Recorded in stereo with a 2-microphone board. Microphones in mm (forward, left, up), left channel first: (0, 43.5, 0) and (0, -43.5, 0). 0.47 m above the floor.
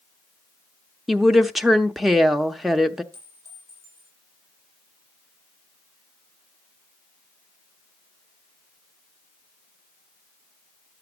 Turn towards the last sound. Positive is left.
turn(degrees=-35)  # may be behind; listen again after turning